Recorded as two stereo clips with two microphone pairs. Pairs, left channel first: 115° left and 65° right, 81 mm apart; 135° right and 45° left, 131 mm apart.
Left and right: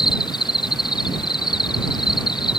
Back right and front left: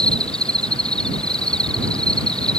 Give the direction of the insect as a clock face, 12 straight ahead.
7 o'clock.